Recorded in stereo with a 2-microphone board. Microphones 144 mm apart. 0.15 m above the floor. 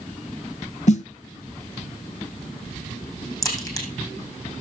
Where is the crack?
20° left (ahead or behind), 4.5 m.